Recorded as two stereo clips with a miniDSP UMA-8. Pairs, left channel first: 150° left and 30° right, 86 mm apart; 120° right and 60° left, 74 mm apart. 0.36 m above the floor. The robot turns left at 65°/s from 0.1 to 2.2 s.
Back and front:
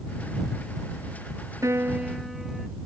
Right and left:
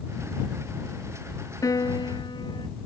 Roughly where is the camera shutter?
I don't hear a camera shutter.